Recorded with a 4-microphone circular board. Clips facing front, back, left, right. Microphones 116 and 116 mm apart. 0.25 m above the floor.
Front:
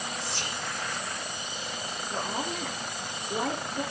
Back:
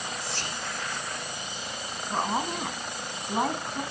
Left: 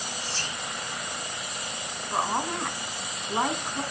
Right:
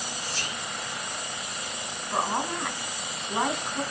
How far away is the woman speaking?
About 2.5 m.